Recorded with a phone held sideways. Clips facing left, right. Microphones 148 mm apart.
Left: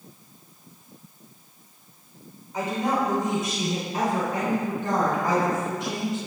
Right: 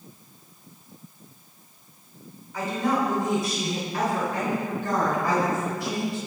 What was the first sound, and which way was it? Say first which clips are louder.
A woman speaking: even; 20° left (ahead or behind).